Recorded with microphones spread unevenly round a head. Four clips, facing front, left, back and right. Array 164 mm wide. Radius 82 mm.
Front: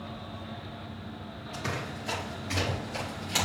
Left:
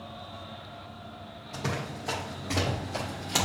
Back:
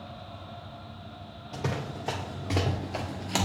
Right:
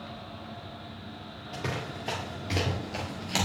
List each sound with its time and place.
1.5 s running footsteps: 150° right, 2 m; by 3.5 s straight behind, 1.8 m